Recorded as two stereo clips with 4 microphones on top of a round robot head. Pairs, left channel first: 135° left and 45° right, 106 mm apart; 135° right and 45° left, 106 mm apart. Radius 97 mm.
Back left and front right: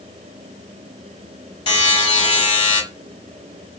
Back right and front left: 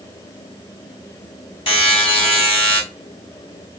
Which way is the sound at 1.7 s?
Straight behind.